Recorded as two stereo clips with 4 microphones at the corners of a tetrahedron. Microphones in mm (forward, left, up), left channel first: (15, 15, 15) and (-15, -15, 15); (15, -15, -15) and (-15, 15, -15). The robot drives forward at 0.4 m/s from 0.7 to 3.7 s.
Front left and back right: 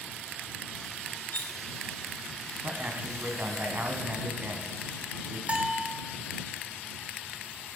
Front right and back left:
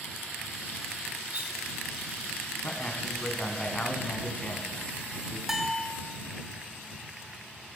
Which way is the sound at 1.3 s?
85° left.